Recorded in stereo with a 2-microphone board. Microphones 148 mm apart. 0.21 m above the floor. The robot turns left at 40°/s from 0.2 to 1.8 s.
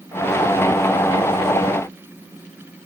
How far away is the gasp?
I don't hear a gasp.